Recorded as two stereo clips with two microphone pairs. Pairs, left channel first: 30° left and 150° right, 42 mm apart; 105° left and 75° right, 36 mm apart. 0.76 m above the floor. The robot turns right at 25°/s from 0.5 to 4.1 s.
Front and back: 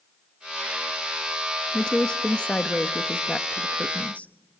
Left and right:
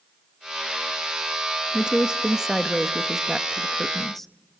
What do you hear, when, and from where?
1.7 s a woman speaking: 25° right, 0.9 m; by 4.3 s 35° left, 0.9 m